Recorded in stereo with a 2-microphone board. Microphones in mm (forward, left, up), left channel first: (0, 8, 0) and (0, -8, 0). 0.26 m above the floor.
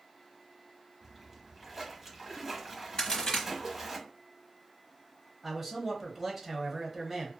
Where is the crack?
45° left (ahead or behind), 1.2 m.